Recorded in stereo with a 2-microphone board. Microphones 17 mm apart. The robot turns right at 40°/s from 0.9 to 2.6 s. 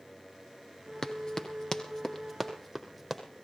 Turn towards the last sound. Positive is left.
turn(degrees=5)  # may be behind; listen again after turning